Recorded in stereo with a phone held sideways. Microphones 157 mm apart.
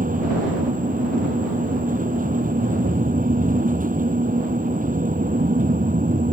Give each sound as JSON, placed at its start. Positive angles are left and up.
{"t": 0.0, "sound": "a fan", "side_deg": -60}